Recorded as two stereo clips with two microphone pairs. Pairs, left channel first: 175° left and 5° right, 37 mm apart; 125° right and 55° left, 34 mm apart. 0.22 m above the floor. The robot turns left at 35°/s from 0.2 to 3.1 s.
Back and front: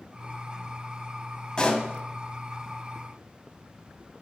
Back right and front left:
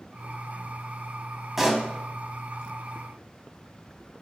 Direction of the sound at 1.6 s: 130° left.